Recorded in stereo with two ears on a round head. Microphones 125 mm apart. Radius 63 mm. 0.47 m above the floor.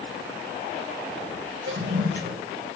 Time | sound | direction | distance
1.7 | a toilet flushing | 85° right | 2 m